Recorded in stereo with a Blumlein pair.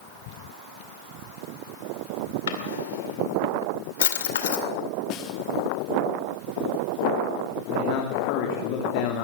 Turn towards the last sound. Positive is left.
turn(degrees=45)